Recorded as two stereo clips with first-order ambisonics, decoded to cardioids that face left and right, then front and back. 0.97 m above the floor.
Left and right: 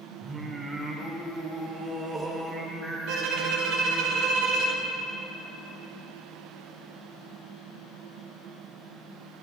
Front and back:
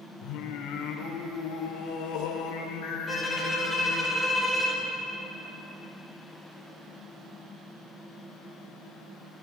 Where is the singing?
15° right, 1.2 m.